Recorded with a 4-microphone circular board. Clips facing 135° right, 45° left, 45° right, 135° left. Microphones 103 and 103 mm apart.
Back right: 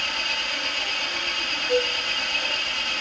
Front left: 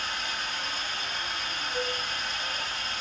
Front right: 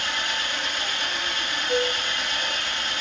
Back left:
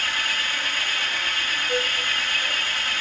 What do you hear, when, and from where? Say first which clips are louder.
0.0 s an engine running: back right 3 dB, even; 115° right, 7 m
1.7 s a flute: back right 10 dB, front right 3 dB; 125° right, 6 m